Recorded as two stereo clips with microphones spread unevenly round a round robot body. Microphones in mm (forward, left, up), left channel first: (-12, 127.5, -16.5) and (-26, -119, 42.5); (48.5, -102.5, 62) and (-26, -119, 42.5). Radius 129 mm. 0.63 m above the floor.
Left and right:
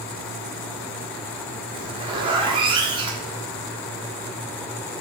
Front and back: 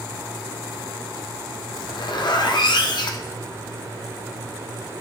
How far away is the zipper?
About 1.1 m.